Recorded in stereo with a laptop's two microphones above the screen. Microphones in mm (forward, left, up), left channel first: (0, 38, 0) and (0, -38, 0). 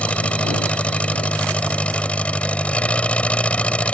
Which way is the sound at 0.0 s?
15° left (ahead or behind).